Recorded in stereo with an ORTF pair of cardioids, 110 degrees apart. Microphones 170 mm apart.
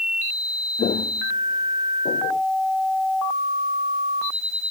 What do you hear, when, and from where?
0.8 s footsteps: 45° left; by 2.4 s 55° left